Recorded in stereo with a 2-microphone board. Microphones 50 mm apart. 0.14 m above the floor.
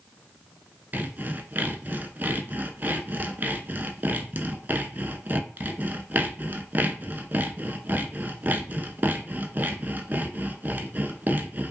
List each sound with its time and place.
0.9 s sawing: 40° right (ahead or behind), 0.6 m